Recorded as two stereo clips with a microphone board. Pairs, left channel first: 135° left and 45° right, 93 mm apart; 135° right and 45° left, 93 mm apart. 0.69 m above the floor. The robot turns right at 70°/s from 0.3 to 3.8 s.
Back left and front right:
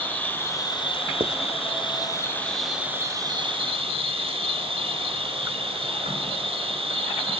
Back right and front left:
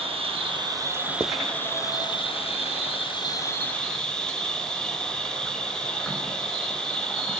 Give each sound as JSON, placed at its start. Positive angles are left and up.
{"t": 0.0, "sound": "an insect", "azimuth_deg": 65, "distance_m": 3.0}
{"t": 1.2, "sound": "writing", "azimuth_deg": -20, "distance_m": 0.7}